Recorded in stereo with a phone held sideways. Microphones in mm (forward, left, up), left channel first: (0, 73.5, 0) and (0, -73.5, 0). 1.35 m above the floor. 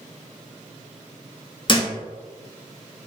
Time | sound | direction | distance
1.7 | a thud | 35° left (ahead or behind) | 0.8 m